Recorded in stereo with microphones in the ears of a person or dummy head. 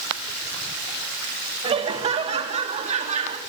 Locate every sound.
1.6 s laughter: 30° right (ahead or behind), 3.5 m; by 3.4 s 40° right (ahead or behind), 4.5 m